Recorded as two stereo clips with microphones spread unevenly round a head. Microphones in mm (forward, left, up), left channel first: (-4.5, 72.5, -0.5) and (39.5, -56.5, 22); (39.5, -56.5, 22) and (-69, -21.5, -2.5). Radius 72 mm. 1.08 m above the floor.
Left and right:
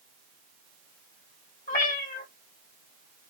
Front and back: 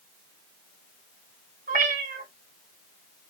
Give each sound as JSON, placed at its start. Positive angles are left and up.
{"t": 1.7, "sound": "a cat meowing", "azimuth_deg": 150, "distance_m": 1.8}